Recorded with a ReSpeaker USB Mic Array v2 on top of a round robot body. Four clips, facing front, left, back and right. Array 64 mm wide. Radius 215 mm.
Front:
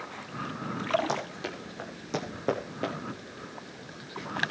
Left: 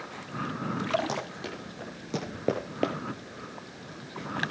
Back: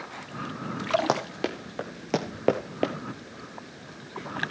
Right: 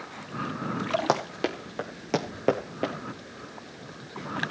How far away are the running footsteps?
About 1.2 m.